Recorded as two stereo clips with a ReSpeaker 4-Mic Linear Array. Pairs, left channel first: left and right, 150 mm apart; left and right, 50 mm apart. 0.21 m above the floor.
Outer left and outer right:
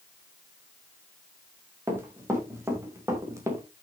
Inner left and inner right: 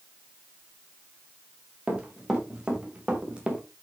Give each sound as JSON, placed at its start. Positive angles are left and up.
{"t": 1.9, "sound": "running footsteps", "side_deg": -15, "distance_m": 4.5}